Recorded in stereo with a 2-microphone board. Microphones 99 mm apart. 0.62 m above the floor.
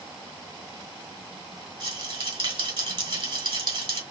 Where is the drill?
No drill in this recording.